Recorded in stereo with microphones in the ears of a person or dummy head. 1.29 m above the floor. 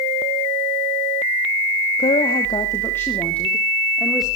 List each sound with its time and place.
2.0 s a woman speaking: 35° left (ahead or behind), 2 m; by 4.3 s centre (ahead or behind), 3.5 m